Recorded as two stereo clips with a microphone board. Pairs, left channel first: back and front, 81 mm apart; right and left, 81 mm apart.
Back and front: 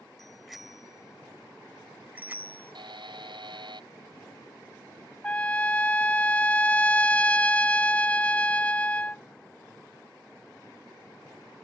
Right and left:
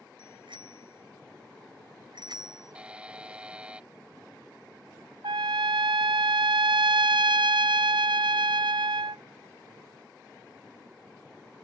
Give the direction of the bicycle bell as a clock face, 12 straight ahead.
9 o'clock.